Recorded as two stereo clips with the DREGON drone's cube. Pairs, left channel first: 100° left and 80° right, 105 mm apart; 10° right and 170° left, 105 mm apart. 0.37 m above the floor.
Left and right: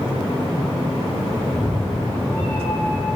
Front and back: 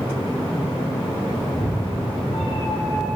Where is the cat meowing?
35° left, 4.5 m; by 3.2 s 30° left, 6.5 m.